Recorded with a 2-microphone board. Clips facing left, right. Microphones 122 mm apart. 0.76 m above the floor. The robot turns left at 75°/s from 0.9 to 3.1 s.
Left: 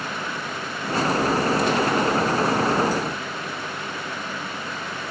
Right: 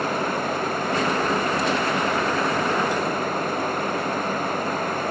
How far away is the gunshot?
I don't hear a gunshot.